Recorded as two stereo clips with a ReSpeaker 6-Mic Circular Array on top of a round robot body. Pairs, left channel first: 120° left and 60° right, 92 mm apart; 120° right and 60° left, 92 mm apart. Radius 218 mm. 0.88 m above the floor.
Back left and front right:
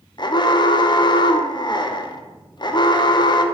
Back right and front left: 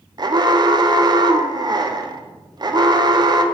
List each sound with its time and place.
0.2 s an alarm: 90° left, 1.3 m